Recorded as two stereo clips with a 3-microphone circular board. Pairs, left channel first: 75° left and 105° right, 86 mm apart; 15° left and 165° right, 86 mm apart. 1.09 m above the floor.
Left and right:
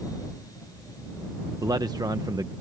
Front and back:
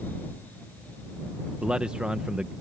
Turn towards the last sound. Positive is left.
turn(degrees=-90)